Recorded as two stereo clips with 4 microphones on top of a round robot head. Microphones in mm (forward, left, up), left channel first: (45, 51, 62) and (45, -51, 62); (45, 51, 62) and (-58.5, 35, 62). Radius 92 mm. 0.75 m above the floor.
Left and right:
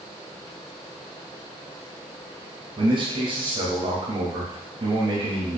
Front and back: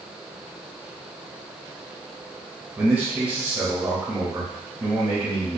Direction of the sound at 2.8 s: 100° right.